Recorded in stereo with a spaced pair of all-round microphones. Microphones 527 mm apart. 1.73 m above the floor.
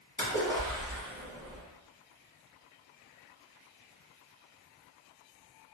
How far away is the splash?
About 1.2 m.